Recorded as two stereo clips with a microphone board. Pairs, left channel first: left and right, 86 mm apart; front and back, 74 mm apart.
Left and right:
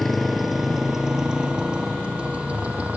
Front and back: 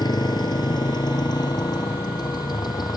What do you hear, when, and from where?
0.0 s a motorcycle: straight ahead; by 3.0 s 15° right